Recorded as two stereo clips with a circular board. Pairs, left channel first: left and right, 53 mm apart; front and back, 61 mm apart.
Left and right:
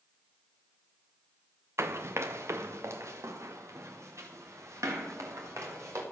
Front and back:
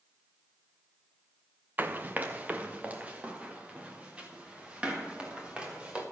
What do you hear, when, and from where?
1.8 s running footsteps: 120° right, 0.7 m; by 6.0 s 110° right, 3.5 m